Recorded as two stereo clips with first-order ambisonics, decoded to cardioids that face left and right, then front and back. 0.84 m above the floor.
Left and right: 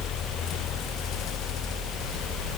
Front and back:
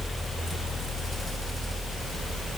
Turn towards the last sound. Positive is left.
No sound to turn to.